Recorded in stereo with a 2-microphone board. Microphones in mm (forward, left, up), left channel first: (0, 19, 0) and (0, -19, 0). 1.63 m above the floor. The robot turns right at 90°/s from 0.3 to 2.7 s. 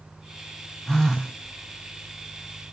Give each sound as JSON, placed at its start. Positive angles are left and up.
{"t": 0.9, "sound": "a phone buzzing", "azimuth_deg": 155, "distance_m": 0.6}